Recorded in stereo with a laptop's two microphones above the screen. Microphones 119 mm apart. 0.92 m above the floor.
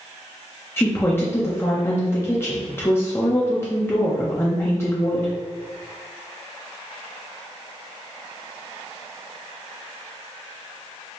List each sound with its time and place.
0.8 s a woman speaking: 20° left (ahead or behind), 0.6 m